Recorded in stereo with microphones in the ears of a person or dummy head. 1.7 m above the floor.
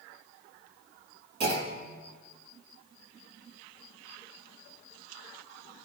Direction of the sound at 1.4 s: 55° right (ahead or behind).